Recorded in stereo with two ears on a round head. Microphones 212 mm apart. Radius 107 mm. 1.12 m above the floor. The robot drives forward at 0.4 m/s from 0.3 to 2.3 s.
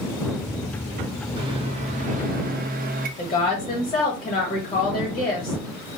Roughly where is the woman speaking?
Centre.